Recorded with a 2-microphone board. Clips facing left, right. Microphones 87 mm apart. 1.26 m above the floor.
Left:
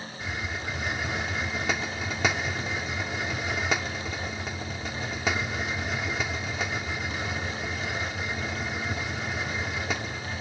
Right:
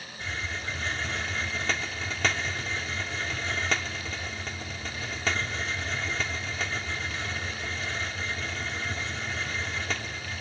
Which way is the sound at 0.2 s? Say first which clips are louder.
Left 1 dB; 15° left (ahead or behind).